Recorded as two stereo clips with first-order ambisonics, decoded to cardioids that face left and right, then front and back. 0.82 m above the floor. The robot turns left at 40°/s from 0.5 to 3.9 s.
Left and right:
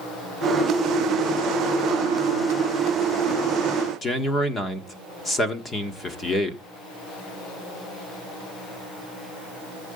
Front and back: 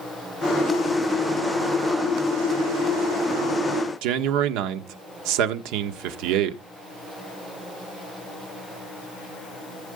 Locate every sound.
4.0 s a man speaking: 165° left, 1.5 m